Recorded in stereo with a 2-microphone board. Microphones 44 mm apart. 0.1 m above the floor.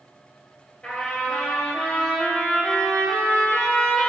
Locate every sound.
0.8 s a trumpet: 25° left (ahead or behind), 1.9 m